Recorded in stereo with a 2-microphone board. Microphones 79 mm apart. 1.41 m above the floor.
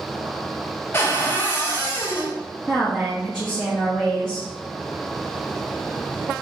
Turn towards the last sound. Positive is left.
turn(degrees=-5)  # may be behind; listen again after turning